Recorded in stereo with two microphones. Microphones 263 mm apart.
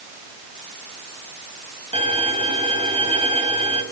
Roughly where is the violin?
Right.